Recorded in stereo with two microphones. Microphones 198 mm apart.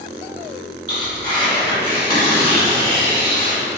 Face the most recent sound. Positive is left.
turn(degrees=25)  # may be behind; listen again after turning